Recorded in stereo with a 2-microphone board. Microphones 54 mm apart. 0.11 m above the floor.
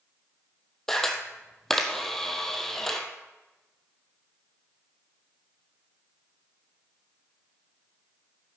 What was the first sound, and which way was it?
A camera shutter, 5° left (ahead or behind).